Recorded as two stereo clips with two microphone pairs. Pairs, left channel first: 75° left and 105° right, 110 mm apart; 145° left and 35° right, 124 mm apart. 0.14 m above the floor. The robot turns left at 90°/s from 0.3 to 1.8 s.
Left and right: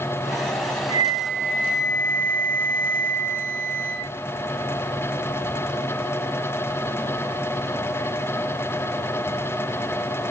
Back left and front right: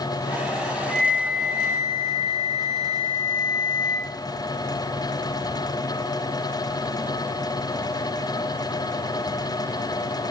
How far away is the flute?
About 1.1 m.